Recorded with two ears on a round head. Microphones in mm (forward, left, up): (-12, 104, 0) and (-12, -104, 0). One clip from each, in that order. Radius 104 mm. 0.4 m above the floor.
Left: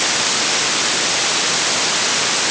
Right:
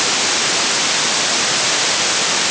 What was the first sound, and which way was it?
Only background noise.